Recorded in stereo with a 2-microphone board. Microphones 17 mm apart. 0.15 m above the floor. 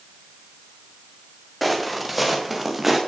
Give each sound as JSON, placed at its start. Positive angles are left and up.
{"t": 1.6, "sound": "footsteps", "side_deg": -5, "distance_m": 5.0}